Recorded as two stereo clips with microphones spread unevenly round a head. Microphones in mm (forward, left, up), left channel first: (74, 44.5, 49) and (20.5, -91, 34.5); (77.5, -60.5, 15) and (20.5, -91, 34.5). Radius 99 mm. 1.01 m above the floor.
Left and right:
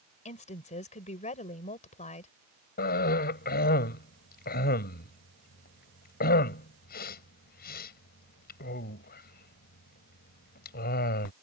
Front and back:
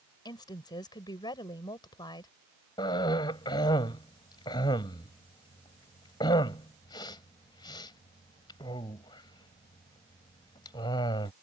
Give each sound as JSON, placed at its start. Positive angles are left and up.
{"t": 0.2, "sound": "a woman speaking", "azimuth_deg": 30}
{"t": 2.8, "sound": "a cough", "azimuth_deg": 55}